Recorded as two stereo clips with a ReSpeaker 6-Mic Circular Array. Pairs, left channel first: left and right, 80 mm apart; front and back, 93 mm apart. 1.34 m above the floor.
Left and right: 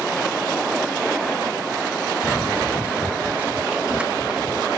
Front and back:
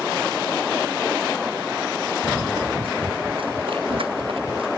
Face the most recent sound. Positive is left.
turn(degrees=-170)